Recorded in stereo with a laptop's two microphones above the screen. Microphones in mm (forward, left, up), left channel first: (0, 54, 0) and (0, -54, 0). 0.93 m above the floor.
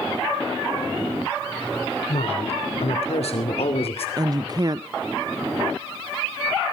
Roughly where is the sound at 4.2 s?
Right.